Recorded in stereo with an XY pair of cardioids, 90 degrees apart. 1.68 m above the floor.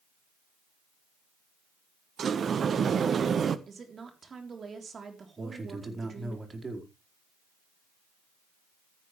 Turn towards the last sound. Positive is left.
turn(degrees=-30)